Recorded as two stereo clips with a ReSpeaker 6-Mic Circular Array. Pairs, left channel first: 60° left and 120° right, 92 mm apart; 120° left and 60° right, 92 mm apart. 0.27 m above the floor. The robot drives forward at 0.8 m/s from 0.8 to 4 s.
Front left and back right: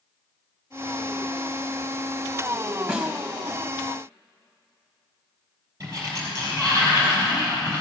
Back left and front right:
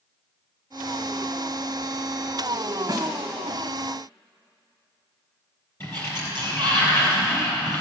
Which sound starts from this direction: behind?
A sliding door, at 5.8 s.